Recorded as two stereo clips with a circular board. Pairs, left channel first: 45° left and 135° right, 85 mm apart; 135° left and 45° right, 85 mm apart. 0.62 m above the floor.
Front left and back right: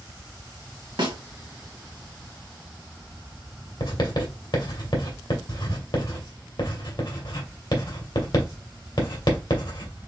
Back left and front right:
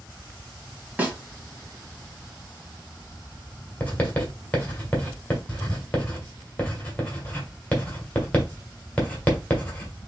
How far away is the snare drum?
About 1.3 m.